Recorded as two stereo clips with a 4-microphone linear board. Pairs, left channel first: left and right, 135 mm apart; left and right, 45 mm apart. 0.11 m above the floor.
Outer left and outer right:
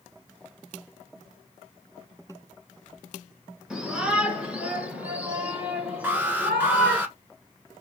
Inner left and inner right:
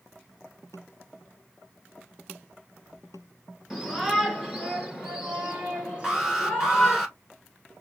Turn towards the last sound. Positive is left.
turn(degrees=-15)  # may be behind; listen again after turning